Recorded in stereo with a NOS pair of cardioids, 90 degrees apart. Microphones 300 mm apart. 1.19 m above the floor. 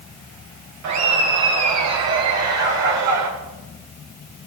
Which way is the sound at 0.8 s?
60° right.